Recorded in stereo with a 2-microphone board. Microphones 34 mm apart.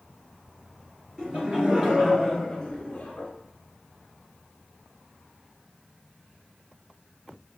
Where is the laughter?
30° right (ahead or behind), 2.5 m; by 3.3 s 40° left (ahead or behind), 1.6 m.